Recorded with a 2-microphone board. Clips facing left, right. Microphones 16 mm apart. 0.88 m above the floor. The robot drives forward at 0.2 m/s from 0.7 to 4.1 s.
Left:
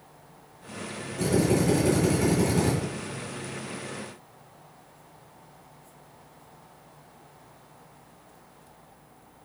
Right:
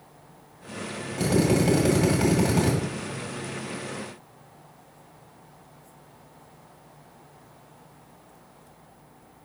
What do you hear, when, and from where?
1.2 s a drill: 60° right (ahead or behind), 2.0 m; by 2.7 s 55° right (ahead or behind), 2 m